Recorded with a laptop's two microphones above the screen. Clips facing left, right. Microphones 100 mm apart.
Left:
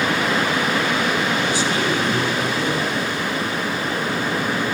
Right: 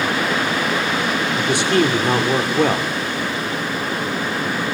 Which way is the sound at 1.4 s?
65° right (ahead or behind).